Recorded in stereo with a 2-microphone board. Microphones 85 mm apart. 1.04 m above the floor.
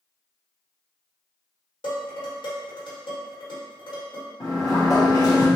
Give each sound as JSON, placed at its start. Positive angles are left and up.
{"t": 1.8, "sound": "dishes clattering", "side_deg": 75, "distance_m": 1.6}
{"t": 4.4, "sound": "a sliding door", "side_deg": 40, "distance_m": 1.0}